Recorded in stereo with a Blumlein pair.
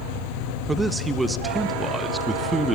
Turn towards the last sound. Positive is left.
turn(degrees=-10)